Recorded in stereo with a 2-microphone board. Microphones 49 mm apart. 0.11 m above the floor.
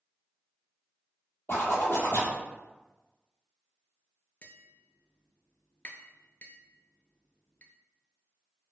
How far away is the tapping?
About 0.6 m.